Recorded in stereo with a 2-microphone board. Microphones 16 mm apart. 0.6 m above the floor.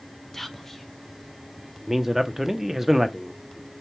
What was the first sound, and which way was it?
Whispering, 15° left (ahead or behind).